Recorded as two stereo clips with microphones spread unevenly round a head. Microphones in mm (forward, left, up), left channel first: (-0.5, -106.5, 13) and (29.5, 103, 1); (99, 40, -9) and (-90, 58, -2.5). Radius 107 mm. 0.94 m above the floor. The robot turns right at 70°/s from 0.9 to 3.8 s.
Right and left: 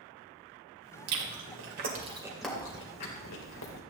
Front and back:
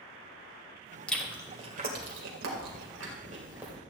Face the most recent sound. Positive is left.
turn(degrees=-90)